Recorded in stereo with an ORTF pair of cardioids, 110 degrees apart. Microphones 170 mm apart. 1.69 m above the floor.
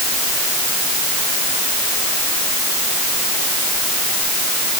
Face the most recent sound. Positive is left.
No sound to turn to.